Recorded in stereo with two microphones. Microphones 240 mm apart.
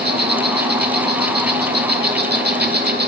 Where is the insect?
45° right (ahead or behind), 1.6 m.